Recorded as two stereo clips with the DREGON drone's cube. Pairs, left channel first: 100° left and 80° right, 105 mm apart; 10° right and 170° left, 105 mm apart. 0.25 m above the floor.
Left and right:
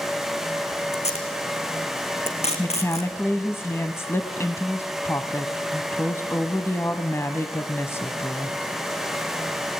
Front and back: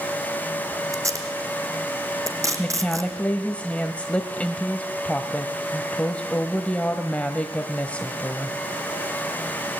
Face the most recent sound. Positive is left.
turn(degrees=55)